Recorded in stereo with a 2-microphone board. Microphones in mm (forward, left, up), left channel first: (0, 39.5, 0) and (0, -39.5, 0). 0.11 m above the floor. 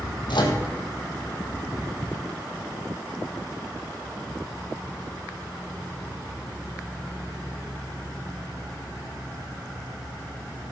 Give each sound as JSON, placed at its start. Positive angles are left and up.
{"t": 0.3, "sound": "a microwave", "side_deg": 70, "distance_m": 3.0}